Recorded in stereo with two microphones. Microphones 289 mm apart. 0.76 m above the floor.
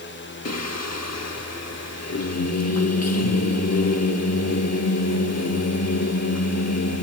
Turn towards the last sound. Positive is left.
turn(degrees=60)  # may be behind; listen again after turning